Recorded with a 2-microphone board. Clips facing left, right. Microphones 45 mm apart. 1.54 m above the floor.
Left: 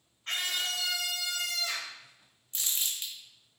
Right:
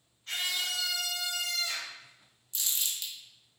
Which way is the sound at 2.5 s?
35° left (ahead or behind).